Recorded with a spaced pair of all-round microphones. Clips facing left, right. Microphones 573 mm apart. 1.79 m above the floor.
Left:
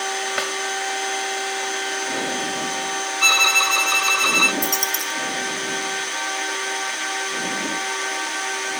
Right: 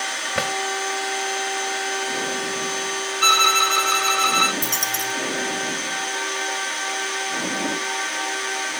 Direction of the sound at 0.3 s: 80° right.